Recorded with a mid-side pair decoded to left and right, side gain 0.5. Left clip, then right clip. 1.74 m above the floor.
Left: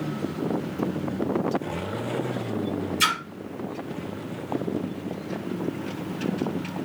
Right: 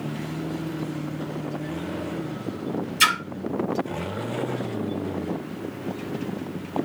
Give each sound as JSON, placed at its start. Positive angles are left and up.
{"t": 3.0, "sound": "a splash", "azimuth_deg": -45, "distance_m": 1.0}